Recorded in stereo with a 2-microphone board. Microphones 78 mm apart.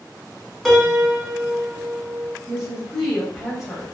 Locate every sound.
0.7 s a piano: centre (ahead or behind), 0.7 m
2.5 s a woman speaking: 5° right (ahead or behind), 1.1 m